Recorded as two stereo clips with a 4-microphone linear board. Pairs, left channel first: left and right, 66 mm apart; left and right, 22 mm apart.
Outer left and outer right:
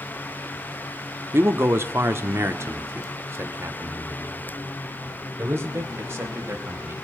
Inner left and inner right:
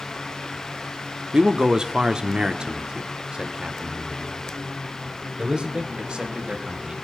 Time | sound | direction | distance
1.3 | a man speaking | 35° right (ahead or behind) | 1.3 m